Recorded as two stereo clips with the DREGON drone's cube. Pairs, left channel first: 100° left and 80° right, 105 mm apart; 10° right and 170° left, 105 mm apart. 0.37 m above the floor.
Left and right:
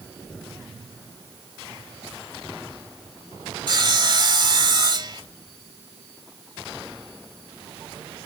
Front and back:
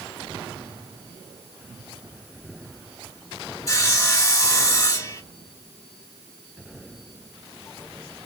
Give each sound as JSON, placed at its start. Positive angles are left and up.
{"t": 3.7, "sound": "sawing", "azimuth_deg": -55, "distance_m": 2.0}